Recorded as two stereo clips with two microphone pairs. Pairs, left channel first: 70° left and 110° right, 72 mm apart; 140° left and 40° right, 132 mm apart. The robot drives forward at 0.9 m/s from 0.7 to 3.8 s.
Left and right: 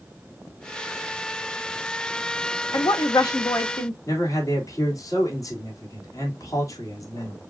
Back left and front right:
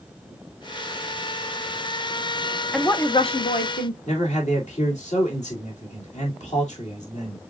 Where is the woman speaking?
50° left, 0.7 m; by 4.0 s 140° left, 0.8 m.